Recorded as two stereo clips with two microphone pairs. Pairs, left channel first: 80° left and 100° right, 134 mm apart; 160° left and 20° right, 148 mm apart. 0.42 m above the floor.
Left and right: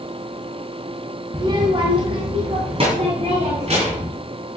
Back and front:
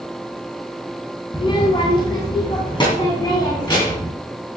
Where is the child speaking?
150° right, 1.2 m; by 4.1 s 140° right, 4 m.